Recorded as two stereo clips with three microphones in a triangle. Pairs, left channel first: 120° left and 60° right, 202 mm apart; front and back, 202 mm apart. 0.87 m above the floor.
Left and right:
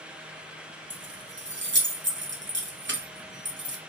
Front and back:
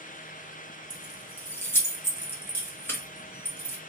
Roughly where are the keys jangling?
Right.